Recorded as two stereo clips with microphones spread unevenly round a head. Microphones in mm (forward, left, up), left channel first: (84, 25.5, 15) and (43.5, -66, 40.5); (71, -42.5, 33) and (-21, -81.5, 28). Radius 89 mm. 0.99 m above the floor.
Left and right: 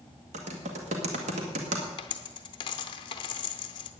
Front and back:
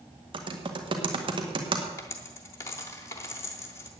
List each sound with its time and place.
0.3 s typing on a keyboard: 130° right, 1.8 m
2.0 s a dropped coin: 55° left, 0.7 m